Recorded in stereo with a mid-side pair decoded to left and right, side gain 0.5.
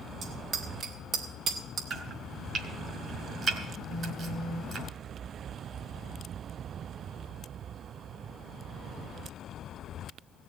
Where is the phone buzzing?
70° right, 3 m.